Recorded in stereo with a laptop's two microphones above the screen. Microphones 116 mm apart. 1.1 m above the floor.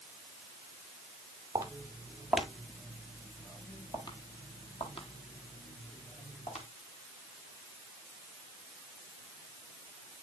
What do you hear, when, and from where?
1.6 s footsteps: 25° right (ahead or behind), 1.3 m; by 6.7 s 65° left (ahead or behind), 2.5 m